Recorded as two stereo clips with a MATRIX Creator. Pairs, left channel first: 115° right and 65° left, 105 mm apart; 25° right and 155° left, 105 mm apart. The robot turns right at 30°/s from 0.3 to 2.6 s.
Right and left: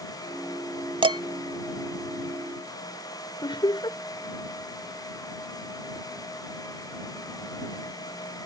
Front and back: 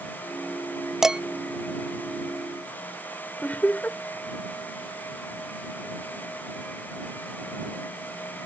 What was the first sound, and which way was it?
Dishes clattering, 75° left.